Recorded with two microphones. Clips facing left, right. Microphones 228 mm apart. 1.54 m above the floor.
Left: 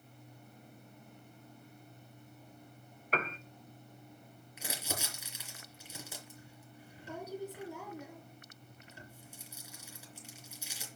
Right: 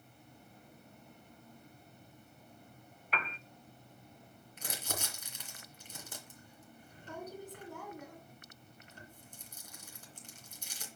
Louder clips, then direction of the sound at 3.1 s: Left 6 dB; 45° left (ahead or behind).